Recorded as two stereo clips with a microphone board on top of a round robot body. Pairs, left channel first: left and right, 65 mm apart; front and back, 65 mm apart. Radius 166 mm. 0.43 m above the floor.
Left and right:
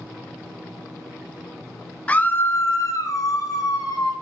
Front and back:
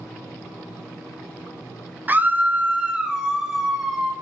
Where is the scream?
145° left, 0.8 m; by 4.1 s 90° left, 1.8 m.